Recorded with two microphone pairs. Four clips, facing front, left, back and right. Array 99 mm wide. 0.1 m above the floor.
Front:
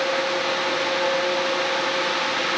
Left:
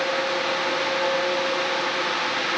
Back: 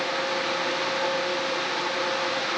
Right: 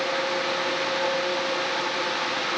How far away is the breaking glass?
No breaking glass in this recording.